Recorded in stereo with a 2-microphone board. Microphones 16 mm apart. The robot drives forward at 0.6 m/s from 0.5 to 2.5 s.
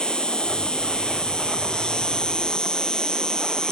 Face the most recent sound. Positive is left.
turn(degrees=55)  # may be behind; listen again after turning